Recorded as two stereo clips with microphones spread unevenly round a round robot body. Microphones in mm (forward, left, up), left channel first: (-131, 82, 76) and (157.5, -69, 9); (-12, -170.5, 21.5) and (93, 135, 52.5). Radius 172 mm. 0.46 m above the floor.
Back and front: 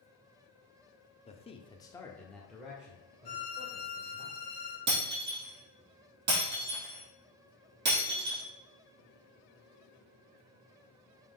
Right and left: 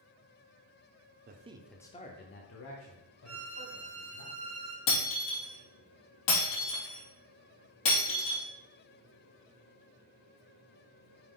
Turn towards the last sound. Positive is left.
turn(degrees=-90)